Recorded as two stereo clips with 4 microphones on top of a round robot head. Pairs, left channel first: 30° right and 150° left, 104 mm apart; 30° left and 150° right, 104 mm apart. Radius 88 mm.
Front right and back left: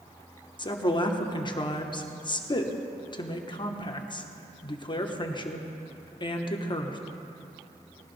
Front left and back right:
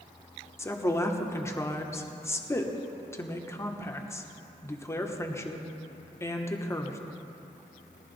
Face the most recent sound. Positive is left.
turn(degrees=-20)